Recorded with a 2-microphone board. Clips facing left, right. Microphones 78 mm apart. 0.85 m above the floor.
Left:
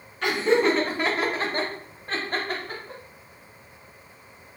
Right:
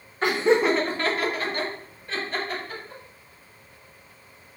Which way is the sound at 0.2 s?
35° right (ahead or behind).